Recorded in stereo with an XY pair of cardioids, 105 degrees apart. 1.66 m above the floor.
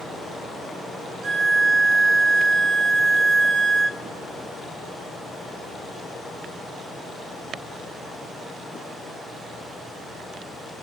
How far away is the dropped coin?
No dropped coin in this recording.